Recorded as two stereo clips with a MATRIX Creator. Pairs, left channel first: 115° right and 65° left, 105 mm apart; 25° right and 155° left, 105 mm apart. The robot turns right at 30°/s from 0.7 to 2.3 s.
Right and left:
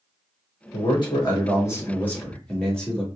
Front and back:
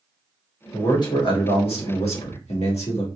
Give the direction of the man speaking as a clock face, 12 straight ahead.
3 o'clock.